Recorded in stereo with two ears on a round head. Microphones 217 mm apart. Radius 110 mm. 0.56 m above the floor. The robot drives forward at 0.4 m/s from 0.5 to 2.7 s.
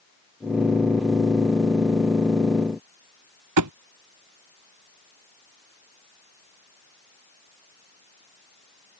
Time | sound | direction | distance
3.6 | a thud | 85° right | ?